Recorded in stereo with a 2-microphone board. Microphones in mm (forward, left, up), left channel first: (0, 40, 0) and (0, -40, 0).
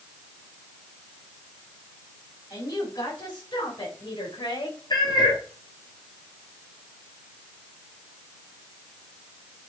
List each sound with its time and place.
2.5 s a woman speaking: 45° left (ahead or behind), 4.5 m; by 4.8 s 65° left (ahead or behind), 4.5 m
4.9 s a cat meowing: 60° left (ahead or behind), 1.9 m